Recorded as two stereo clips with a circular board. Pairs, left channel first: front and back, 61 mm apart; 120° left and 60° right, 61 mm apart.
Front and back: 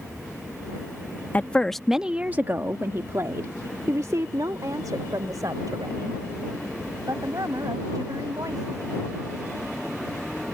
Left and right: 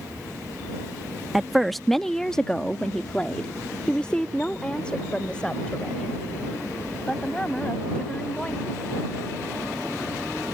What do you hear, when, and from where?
1.3 s a woman speaking: 25° left; by 8.8 s 165° right